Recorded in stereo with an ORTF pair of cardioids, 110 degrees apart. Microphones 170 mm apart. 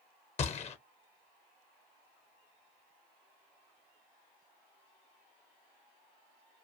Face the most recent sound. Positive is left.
turn(degrees=40)